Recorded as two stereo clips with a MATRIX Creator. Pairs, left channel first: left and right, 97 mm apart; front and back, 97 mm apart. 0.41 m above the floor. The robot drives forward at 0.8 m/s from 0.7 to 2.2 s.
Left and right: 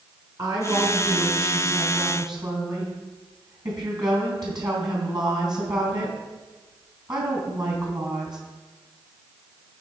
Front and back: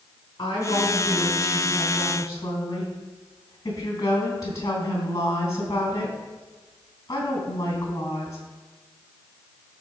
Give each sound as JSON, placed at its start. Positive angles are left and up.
{"t": 0.4, "sound": "a woman speaking", "azimuth_deg": -40, "distance_m": 4.0}